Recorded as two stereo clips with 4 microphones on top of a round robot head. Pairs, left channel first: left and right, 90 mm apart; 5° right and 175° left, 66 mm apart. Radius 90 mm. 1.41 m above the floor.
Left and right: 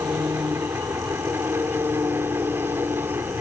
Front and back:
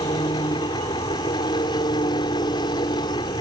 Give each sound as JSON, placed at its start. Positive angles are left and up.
{"t": 0.0, "sound": "an engine running", "azimuth_deg": -20}